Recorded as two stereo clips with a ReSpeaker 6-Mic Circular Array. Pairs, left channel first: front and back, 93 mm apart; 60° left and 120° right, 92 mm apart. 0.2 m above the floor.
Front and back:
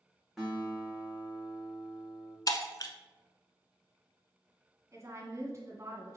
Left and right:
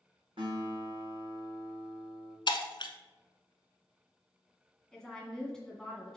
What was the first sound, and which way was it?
A guitar, 95° right.